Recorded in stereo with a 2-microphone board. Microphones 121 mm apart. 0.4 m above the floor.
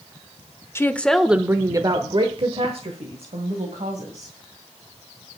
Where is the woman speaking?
20° left (ahead or behind), 0.9 m; by 4.3 s 65° right (ahead or behind), 2.5 m.